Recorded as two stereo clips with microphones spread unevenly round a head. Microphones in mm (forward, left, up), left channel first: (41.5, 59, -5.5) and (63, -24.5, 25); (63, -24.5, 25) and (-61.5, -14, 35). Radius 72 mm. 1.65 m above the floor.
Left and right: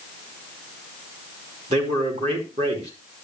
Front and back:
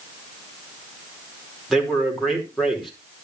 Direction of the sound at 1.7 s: 95° right.